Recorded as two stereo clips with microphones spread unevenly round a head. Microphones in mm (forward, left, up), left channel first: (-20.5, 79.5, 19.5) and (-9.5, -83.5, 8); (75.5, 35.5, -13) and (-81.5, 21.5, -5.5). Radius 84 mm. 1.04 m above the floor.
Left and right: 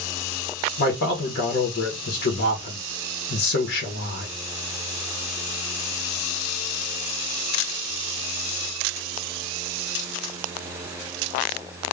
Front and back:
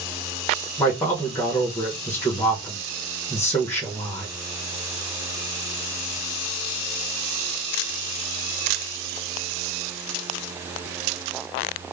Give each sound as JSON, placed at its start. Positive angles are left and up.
{"t": 0.8, "sound": "a man speaking", "azimuth_deg": 80, "distance_m": 0.8}